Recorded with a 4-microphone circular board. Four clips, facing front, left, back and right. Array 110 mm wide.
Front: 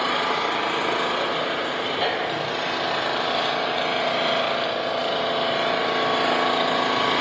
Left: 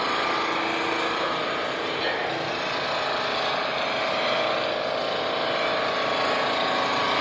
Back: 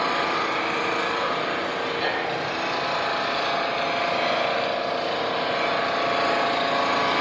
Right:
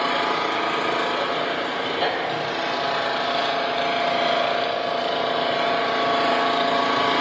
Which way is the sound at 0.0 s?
50° right.